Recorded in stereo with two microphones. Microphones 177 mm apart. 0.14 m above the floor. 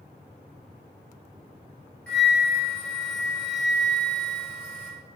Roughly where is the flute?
Centre.